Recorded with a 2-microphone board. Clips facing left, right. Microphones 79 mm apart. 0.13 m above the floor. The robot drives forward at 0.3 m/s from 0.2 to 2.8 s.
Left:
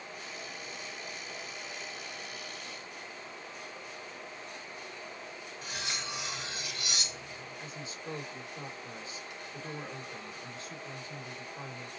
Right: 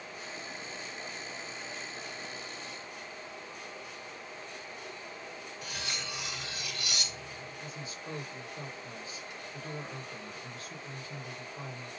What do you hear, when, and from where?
5.6 s cutlery clinking: 25° left (ahead or behind), 0.7 m
7.6 s a woman speaking: 25° left (ahead or behind), 2.0 m